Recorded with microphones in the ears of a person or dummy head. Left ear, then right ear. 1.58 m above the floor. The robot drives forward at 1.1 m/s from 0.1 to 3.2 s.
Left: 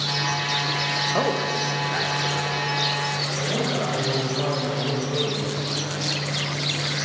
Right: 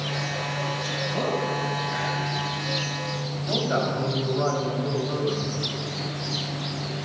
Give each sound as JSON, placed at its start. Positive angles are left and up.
{"t": 1.1, "sound": "a man speaking", "side_deg": 40, "distance_m": 1.5}
{"t": 3.4, "sound": "a man speaking", "side_deg": -70, "distance_m": 4.0}